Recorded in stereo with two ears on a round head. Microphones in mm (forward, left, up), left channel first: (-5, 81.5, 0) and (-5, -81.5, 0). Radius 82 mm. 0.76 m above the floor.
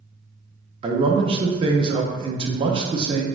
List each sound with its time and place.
0.8 s a man speaking: 30° right (ahead or behind), 0.6 m